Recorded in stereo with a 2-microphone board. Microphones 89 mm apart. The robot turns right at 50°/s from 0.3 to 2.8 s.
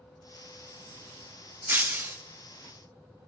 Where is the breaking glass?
20° right (ahead or behind), 0.7 m; by 2.2 s 25° right (ahead or behind), 0.7 m.